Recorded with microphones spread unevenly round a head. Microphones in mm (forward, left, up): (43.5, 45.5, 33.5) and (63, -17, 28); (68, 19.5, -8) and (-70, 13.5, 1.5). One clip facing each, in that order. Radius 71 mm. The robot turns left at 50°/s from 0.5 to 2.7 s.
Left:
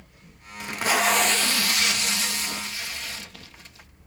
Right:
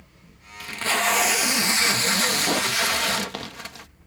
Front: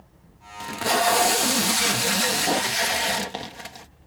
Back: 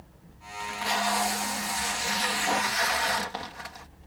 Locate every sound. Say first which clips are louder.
0.6 s tape being pulled: left 1 dB, front 7 dB; 45° left; by 3.9 s 60° right